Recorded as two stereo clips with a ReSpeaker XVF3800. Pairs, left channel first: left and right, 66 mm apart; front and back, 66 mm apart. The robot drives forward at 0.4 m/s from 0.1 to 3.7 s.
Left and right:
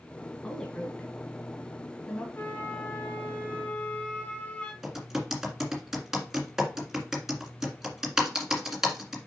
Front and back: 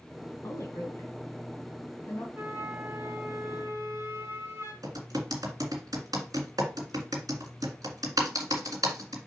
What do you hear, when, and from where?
0.4 s a woman speaking: 10° left, 2.5 m; by 2.2 s 15° left, 1.8 m
2.4 s a flute: 130° left, 1.1 m; by 4.7 s 150° left, 1.5 m
4.8 s typing on a keyboard: 175° right, 1.9 m